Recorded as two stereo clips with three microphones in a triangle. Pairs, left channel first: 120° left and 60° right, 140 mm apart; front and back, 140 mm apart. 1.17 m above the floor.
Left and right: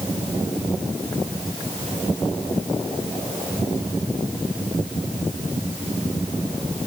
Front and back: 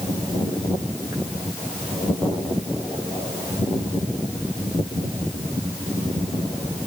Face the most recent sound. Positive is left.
No sound to turn to.